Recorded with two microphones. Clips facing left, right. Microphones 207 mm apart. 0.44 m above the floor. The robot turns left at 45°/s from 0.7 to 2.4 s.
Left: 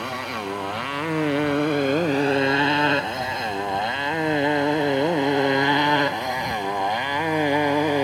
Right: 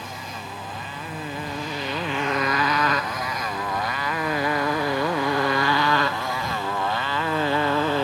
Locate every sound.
0.0 s a motorcycle: 70° left (ahead or behind); by 8.1 s 15° left (ahead or behind)